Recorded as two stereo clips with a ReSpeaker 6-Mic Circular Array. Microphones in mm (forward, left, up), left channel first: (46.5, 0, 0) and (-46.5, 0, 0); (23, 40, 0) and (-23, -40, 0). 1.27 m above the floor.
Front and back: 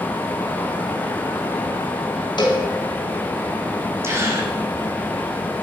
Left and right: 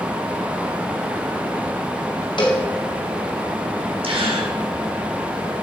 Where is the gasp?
120° right, 3.5 m.